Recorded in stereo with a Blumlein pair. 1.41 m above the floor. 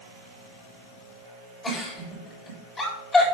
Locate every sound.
1.6 s a giggle: 15° left, 7 m